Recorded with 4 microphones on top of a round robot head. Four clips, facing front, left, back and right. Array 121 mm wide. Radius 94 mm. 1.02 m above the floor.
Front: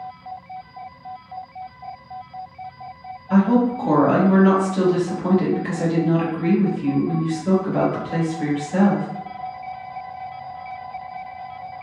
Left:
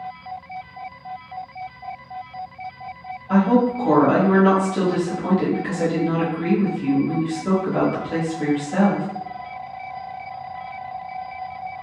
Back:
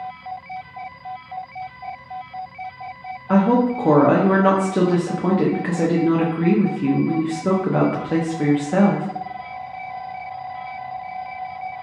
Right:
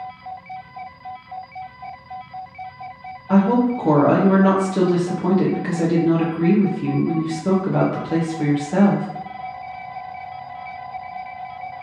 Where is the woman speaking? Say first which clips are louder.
Right 1 dB, back 1 dB; 160° right, 0.6 m.